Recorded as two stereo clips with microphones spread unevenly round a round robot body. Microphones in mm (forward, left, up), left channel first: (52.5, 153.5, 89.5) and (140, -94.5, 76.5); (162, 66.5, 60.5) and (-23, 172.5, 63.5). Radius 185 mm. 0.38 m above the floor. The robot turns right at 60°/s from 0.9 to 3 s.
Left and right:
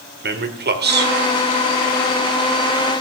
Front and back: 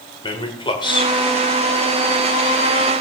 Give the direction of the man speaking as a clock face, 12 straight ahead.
3 o'clock.